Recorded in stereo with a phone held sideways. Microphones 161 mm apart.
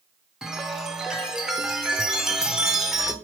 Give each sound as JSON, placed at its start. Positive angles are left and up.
{"t": 0.4, "sound": "a chime", "side_deg": -5, "distance_m": 0.5}